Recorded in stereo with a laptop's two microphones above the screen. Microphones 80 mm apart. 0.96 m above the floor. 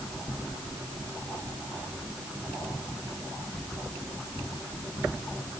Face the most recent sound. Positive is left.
No sound to turn to.